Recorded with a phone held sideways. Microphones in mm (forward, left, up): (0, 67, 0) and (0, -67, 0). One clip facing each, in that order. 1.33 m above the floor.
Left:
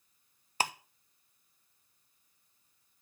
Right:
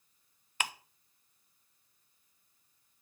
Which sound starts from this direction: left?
Ticking, at 0.6 s.